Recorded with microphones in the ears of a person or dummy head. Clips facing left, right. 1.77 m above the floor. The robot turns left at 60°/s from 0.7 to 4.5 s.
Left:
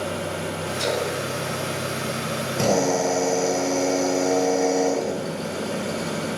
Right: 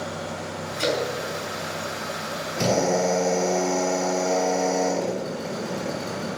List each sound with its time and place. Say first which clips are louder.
0.8 s a splash: right 1 dB; 45° right (ahead or behind), 3 m; by 1.2 s 30° right (ahead or behind), 3 m
2.6 s a drill: left 1 dB; 125° left, 3.5 m; by 6.3 s 10° left, 3.5 m